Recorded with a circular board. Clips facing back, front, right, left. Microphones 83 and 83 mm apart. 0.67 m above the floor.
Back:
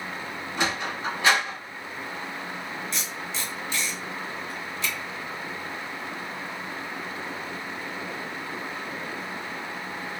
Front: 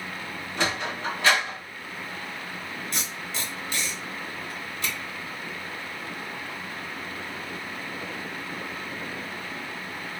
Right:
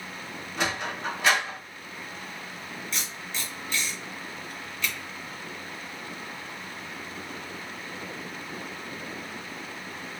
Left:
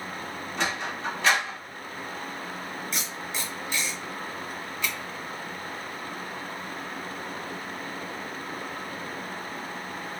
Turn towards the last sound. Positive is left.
turn(degrees=15)